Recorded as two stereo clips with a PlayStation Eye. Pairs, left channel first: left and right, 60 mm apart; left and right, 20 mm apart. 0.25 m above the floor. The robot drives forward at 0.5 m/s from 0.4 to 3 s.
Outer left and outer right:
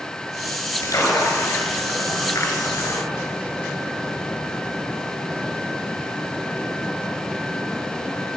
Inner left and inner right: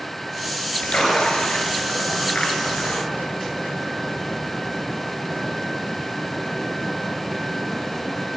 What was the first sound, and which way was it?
A splash, 60° left (ahead or behind).